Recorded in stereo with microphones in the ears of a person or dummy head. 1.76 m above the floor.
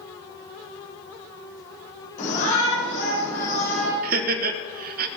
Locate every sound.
2.2 s a shout: 55° left (ahead or behind), 6 m
4.0 s laughter: 60° right (ahead or behind), 1.6 m